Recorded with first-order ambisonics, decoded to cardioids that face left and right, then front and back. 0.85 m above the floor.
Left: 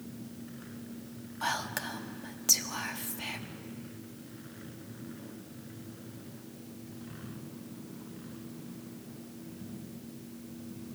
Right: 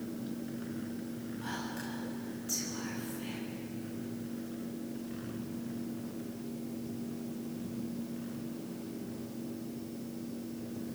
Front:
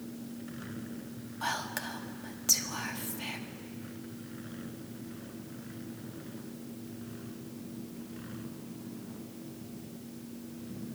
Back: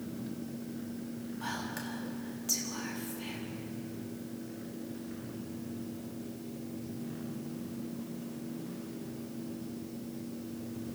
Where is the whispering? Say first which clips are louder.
Left 9 dB, front 5 dB; 65° left, 1.6 m.